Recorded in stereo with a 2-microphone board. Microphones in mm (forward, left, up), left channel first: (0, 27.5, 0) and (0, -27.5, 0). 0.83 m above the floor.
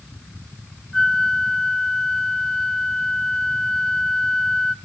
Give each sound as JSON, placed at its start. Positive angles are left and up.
{"t": 0.9, "sound": "a flute", "side_deg": 10, "distance_m": 0.5}